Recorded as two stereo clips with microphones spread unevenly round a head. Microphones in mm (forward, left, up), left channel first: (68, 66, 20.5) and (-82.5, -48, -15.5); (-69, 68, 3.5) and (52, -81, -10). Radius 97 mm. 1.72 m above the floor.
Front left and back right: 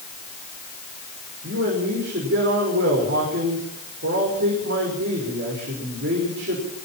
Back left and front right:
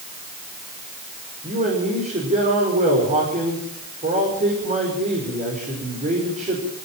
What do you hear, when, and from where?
1.4 s a man speaking: 105° right, 5.5 m